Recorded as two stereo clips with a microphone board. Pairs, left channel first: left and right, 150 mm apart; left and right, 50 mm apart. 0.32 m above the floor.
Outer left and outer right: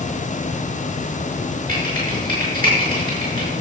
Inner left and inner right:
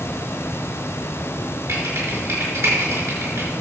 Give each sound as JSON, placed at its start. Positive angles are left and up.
{"t": 1.7, "sound": "typing on a keyboard", "side_deg": -70, "distance_m": 5.0}